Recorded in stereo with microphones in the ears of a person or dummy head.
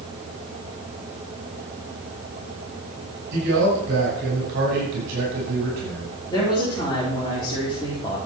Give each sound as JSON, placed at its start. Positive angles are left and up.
{"t": 3.3, "sound": "a man speaking", "side_deg": -60, "distance_m": 6.0}
{"t": 6.3, "sound": "a woman speaking", "side_deg": 20, "distance_m": 4.0}